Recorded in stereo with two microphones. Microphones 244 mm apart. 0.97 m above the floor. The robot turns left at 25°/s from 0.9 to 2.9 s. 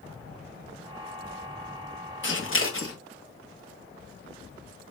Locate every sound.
2.2 s scissors: 50° left (ahead or behind), 1.4 m; by 3.0 s 60° left (ahead or behind), 1.4 m